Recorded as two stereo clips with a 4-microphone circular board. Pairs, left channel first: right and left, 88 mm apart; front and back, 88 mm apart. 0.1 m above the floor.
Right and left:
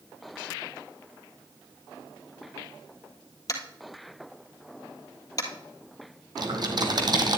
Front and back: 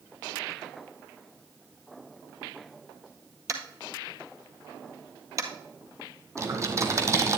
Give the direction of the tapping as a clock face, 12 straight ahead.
4 o'clock.